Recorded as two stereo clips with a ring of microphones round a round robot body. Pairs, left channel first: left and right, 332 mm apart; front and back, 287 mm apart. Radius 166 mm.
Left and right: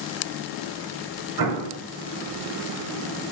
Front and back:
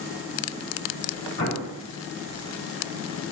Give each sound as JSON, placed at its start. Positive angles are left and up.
{"t": 1.4, "sound": "an explosion", "azimuth_deg": -55, "distance_m": 1.2}